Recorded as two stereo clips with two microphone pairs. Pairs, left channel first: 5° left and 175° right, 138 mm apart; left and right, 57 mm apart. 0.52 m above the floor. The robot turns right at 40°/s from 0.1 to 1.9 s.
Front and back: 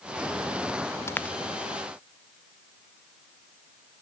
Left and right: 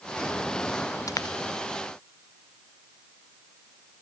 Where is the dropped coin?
80° left; by 1.4 s 90° left.